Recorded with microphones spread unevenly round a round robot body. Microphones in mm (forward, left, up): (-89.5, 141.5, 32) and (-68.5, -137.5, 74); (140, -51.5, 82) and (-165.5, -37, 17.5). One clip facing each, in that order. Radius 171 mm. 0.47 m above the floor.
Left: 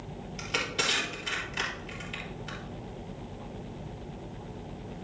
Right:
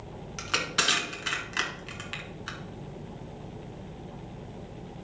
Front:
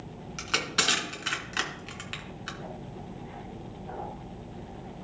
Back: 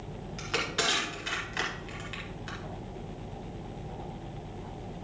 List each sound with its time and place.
0.4 s crushing: 55° right, 2 m